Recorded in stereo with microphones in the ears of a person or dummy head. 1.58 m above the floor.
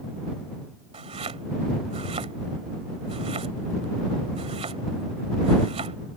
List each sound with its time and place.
0.9 s chopping: 25° right (ahead or behind)